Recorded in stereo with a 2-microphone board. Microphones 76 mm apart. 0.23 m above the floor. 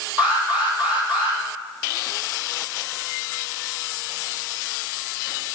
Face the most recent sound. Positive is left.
turn(degrees=-20)  # may be behind; listen again after turning